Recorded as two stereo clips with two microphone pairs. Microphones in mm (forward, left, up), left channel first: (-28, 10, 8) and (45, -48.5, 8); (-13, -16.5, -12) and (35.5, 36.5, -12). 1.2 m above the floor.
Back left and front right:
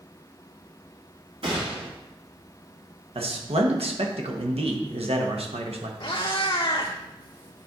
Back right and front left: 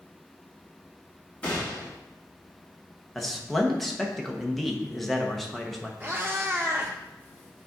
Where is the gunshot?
60° right, 2.5 m.